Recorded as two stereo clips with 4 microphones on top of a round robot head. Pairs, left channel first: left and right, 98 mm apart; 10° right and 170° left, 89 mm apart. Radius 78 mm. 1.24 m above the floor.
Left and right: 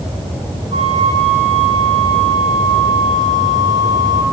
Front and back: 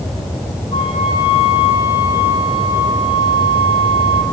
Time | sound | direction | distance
0.7 | a flute | 55° right | 6.5 m